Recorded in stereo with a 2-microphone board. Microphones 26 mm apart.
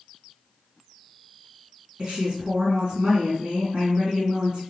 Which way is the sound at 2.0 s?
45° right (ahead or behind).